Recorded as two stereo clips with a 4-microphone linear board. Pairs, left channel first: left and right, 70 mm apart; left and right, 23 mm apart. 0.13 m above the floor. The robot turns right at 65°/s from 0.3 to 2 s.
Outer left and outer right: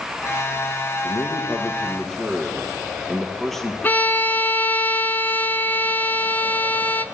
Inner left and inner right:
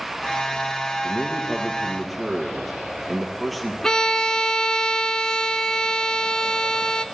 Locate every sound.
1.0 s a man speaking: 110° left, 2.5 m; by 3.7 s 175° left, 2.5 m
3.8 s a violin: 25° left (ahead or behind), 0.8 m